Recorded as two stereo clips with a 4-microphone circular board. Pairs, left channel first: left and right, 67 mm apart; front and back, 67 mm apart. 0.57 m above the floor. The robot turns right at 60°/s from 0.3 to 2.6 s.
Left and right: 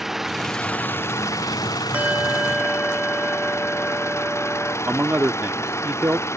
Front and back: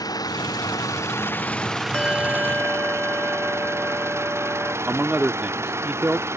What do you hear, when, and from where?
0.0 s an engine running: 5° right; by 6.4 s 135° left
1.9 s a bell: 60° right; by 4.8 s 20° right
4.9 s a man speaking: 130° right